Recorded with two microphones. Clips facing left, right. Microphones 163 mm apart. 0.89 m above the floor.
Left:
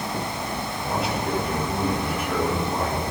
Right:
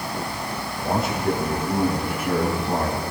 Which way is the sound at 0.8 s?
45° right (ahead or behind).